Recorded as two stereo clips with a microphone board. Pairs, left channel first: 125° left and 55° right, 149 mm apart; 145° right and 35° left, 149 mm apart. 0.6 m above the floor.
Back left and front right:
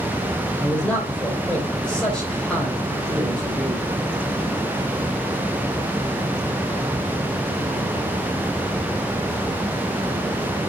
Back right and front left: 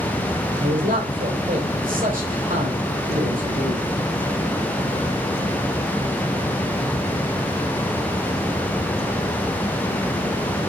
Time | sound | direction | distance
0.6 | a man speaking | 40° left | 3 m